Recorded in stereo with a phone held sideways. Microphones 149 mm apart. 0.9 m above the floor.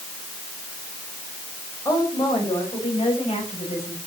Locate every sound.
1.9 s a woman speaking: 25° left (ahead or behind), 5 m; by 4.0 s 50° left (ahead or behind), 6.5 m